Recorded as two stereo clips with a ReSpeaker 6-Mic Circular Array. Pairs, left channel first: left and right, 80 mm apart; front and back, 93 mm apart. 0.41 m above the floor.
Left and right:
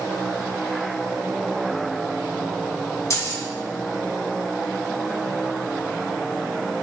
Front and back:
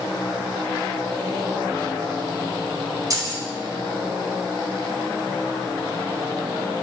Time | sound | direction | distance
3.1 | keys jangling | 135° left | 1.6 m